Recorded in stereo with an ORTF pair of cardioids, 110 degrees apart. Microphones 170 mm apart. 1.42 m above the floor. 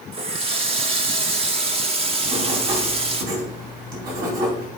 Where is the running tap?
35° right, 1.3 m.